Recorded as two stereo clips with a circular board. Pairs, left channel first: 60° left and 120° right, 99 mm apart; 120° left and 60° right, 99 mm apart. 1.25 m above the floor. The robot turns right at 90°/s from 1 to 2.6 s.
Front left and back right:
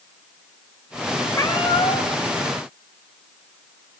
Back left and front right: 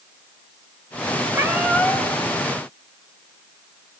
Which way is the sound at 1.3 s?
5° right.